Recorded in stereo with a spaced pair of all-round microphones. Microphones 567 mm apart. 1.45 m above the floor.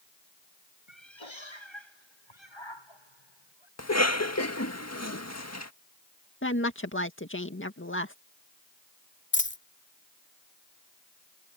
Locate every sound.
0.9 s a cat meowing: 55° left (ahead or behind); by 3.7 s 45° left (ahead or behind)
3.8 s a cough: 25° left (ahead or behind)
6.4 s a woman speaking: 20° left (ahead or behind)
9.3 s a dropped coin: 20° left (ahead or behind)